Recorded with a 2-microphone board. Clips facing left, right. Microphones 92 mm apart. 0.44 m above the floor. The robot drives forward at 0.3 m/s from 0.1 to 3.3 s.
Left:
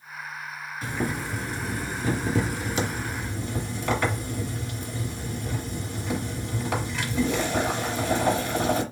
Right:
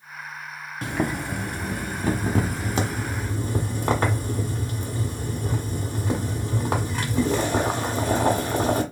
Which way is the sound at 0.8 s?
65° right (ahead or behind).